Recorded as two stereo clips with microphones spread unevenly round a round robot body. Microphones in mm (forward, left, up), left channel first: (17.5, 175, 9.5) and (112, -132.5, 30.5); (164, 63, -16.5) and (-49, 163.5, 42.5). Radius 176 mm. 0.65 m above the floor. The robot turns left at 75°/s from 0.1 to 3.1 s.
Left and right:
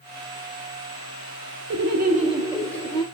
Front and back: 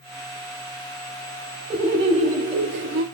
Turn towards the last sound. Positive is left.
turn(degrees=155)